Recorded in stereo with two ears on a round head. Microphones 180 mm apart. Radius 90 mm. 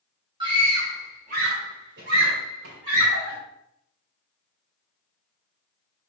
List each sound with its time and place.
0.4 s a scream: 25° right (ahead or behind), 2.5 m; by 3.4 s 70° right (ahead or behind), 3 m